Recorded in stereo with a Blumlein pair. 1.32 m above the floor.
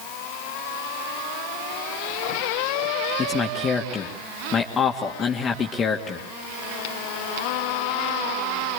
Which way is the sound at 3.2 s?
20° left.